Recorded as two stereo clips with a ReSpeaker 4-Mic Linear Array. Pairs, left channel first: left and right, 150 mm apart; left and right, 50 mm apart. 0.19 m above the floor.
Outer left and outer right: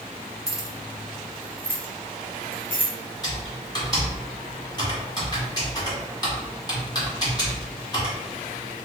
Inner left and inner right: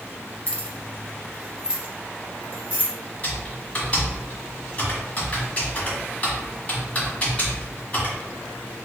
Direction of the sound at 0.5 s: 25° left (ahead or behind).